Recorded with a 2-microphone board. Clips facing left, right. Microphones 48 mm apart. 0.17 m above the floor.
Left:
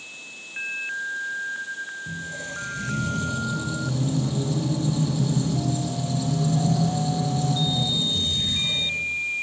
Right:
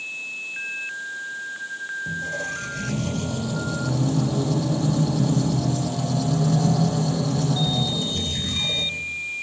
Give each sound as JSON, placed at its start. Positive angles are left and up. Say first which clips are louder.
{"t": 2.1, "sound": "a squeak", "louder": "right 5 dB", "side_deg": -55, "distance_m": 5.0}